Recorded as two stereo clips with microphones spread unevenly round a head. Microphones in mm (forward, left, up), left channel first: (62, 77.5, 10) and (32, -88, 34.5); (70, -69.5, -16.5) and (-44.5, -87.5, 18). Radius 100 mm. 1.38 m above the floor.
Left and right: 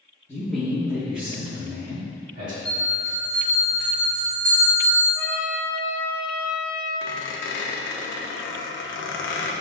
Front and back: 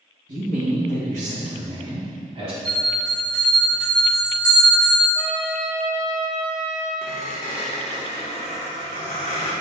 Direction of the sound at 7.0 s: 75° left.